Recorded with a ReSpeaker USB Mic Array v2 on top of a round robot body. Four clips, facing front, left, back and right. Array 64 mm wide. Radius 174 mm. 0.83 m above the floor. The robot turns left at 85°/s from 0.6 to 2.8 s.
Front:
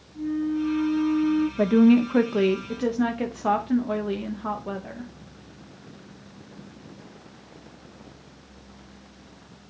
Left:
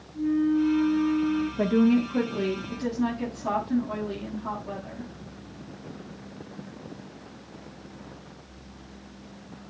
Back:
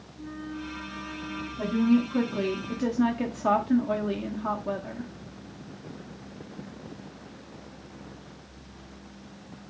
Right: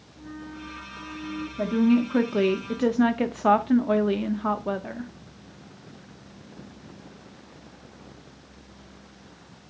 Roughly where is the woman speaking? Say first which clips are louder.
Right 1 dB, front 5 dB; ahead.